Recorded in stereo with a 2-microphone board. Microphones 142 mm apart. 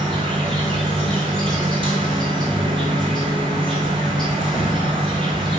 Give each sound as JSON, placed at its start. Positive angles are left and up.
{"t": 0.0, "sound": "an insect", "side_deg": -40, "distance_m": 1.2}